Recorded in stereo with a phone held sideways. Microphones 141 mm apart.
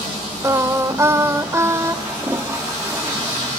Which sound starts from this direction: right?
Singing, at 0.4 s.